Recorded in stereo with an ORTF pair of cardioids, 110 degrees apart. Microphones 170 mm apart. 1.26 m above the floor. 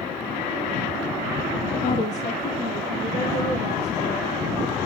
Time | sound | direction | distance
1.8 | a woman speaking | 45° left | 1.3 m